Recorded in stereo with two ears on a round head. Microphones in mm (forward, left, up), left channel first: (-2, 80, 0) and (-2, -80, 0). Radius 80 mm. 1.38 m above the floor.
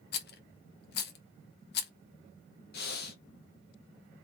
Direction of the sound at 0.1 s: 55° left (ahead or behind).